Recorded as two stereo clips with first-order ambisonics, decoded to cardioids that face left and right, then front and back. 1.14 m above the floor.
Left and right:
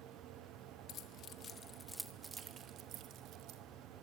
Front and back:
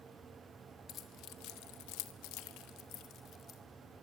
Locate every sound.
0.9 s keys jangling: 45° left, 1.4 m; by 3.6 s 55° right, 1.8 m